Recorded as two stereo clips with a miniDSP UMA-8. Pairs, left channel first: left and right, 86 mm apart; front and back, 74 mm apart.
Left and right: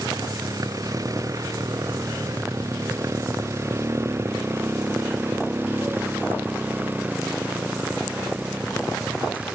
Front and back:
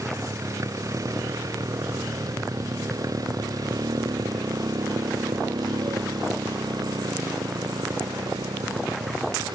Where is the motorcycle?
135° right; by 9.6 s 170° right.